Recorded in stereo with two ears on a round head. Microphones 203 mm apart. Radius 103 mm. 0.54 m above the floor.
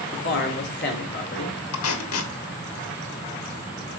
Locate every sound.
0.1 s a man speaking: 50° left (ahead or behind), 2.0 m
1.7 s tape being pulled: 70° left (ahead or behind), 1.2 m